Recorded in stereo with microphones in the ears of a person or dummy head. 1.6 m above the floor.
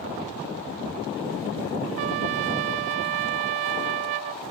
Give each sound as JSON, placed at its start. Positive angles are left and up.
{"t": 2.0, "sound": "a trumpet", "side_deg": -45}